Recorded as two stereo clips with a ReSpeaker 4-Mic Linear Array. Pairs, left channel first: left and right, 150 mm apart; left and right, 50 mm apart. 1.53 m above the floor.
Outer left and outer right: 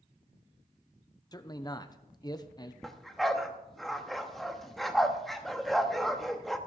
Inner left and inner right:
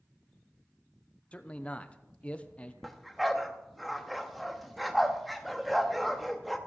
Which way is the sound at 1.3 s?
25° left (ahead or behind).